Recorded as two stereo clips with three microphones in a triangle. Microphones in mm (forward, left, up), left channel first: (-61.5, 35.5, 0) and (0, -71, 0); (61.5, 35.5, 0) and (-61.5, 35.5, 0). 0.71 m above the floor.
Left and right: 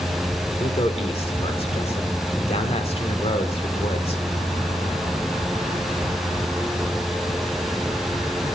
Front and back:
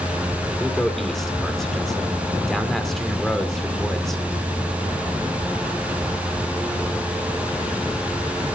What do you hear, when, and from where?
0.6 s a man speaking: 90° left, 1.7 m